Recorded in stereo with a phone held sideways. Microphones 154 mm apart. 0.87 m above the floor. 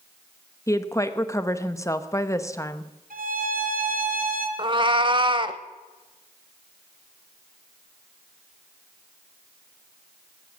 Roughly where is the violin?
Right.